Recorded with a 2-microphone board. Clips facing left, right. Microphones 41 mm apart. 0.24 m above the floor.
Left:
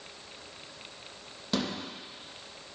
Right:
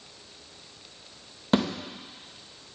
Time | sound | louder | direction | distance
1.5 | a thud | right 7 dB | 35° right (ahead or behind) | 2.5 m